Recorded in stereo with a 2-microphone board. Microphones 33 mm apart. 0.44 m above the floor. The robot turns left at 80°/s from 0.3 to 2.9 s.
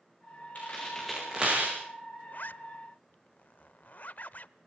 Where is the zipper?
55° left (ahead or behind), 0.7 m; by 4.5 s 50° left (ahead or behind), 0.7 m.